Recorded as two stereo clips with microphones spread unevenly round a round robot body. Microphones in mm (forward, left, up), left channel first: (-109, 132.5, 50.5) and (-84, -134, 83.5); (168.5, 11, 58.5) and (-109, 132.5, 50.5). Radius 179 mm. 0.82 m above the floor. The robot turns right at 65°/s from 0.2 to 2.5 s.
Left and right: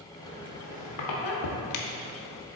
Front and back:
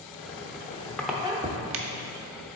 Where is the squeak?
10° left, 0.7 m; by 2.5 s 155° left, 0.7 m.